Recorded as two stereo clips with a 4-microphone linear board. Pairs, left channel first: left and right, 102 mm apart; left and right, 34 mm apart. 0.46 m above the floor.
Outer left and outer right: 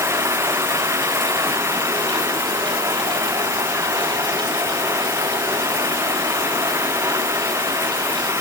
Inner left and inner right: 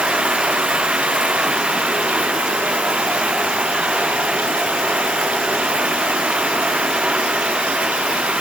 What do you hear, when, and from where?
0.0 s running water: 25° right (ahead or behind)